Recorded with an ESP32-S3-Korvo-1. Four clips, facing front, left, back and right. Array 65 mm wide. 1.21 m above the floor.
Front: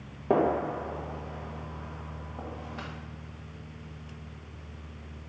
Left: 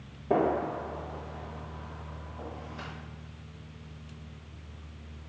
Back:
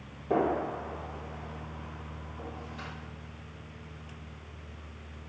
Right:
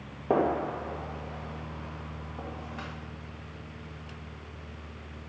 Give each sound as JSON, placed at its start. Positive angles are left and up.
{"t": 0.3, "sound": "a gunshot", "azimuth_deg": -50, "distance_m": 1.6}